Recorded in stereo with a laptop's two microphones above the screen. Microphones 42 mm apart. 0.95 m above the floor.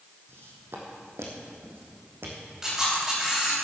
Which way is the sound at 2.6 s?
10° right (ahead or behind).